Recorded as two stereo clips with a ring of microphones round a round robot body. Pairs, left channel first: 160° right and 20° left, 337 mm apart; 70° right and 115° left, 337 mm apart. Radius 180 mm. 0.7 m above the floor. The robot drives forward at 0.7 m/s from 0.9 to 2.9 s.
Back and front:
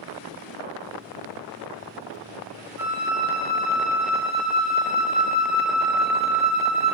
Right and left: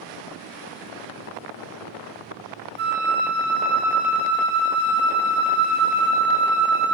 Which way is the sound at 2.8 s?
95° left.